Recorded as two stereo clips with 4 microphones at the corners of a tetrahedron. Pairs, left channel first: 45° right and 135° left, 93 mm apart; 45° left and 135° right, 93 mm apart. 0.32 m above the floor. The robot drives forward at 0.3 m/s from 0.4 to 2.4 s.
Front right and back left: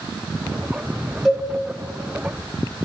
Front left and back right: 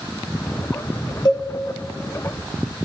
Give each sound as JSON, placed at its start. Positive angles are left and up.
{"t": 1.2, "sound": "a cowbell", "azimuth_deg": 40, "distance_m": 1.2}